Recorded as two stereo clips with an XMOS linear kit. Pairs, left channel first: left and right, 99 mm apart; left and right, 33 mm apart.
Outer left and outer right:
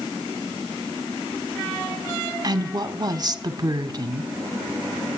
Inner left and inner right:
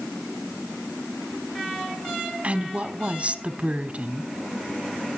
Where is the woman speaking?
40° right (ahead or behind), 1.1 m.